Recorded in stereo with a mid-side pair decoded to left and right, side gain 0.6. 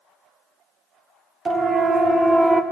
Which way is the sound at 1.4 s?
35° right.